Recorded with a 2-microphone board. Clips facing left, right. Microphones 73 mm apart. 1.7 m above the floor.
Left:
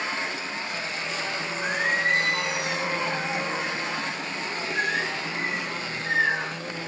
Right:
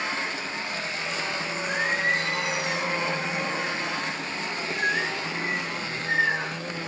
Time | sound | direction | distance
1.6 | singing | 70° left (ahead or behind) | 4 m